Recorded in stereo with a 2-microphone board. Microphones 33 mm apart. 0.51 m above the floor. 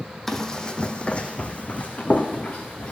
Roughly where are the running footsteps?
Centre.